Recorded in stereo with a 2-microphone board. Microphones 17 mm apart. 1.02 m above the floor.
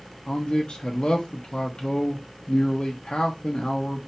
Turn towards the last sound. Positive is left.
turn(degrees=55)  # may be behind; listen again after turning